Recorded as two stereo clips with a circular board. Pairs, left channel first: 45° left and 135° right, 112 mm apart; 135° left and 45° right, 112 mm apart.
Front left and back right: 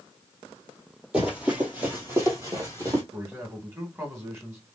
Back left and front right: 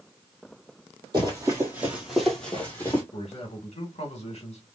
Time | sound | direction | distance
1.1 | running footsteps | 60° right | 1.8 m
3.1 | a man speaking | 155° left | 1.5 m